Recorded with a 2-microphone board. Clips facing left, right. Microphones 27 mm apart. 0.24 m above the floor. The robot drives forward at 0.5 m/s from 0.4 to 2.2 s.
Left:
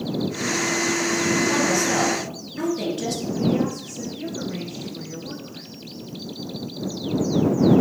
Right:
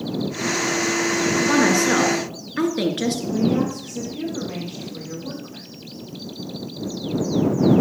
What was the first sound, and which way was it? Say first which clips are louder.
A woman speaking: right 4 dB; 65° right (ahead or behind).